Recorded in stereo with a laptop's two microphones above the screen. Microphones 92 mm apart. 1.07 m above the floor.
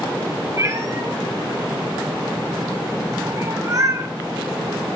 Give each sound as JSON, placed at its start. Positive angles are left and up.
{"t": 0.6, "sound": "a cat meowing", "side_deg": -40, "distance_m": 1.1}